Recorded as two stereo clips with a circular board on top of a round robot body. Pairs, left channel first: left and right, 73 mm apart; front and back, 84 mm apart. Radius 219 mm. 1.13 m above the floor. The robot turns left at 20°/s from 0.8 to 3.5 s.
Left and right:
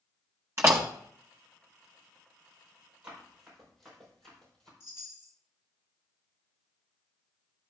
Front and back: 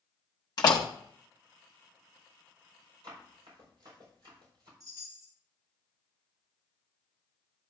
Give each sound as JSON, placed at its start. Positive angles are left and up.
{"t": 0.6, "sound": "a door slam", "azimuth_deg": -40, "distance_m": 0.5}
{"t": 3.0, "sound": "running footsteps", "azimuth_deg": -170, "distance_m": 5.0}
{"t": 4.8, "sound": "a chime", "azimuth_deg": 135, "distance_m": 3.0}